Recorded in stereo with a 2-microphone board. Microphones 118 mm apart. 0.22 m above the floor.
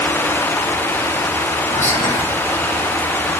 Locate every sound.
1.7 s whispering: 80° left, 8.5 m